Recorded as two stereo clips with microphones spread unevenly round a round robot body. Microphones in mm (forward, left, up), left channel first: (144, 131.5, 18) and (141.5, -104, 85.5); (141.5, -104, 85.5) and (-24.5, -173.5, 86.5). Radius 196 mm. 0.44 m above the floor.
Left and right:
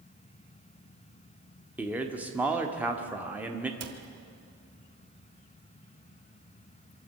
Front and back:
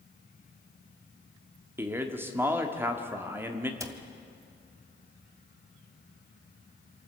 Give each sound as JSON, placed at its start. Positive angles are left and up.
{"t": 1.8, "sound": "a man speaking", "azimuth_deg": 150, "distance_m": 1.3}
{"t": 3.8, "sound": "a cupboard door", "azimuth_deg": -85, "distance_m": 1.9}